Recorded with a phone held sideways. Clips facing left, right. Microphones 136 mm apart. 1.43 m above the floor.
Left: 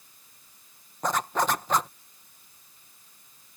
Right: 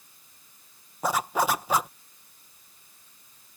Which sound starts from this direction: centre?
A zipper, at 1.0 s.